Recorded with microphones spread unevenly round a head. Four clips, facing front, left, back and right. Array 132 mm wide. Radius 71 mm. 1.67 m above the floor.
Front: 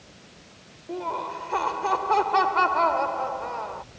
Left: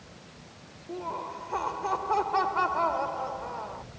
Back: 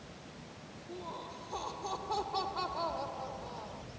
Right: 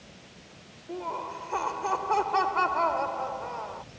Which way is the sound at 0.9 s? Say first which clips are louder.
Right 1 dB, front 14 dB; 10° right.